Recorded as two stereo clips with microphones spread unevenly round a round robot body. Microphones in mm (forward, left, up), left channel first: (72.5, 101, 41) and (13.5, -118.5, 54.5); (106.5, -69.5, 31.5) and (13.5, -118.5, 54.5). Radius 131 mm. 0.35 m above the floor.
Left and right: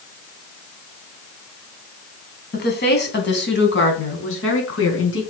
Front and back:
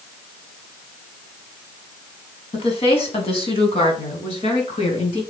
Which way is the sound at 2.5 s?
35° left.